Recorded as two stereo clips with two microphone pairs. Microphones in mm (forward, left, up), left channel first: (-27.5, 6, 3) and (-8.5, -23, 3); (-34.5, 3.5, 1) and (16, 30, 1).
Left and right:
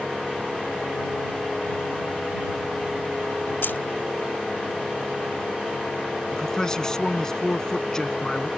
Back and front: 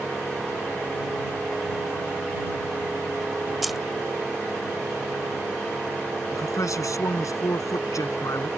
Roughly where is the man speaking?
Behind.